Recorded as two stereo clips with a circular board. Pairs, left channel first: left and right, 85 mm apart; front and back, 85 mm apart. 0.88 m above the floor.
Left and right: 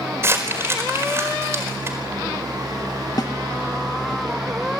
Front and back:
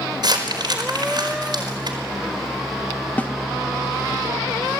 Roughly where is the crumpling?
Behind right.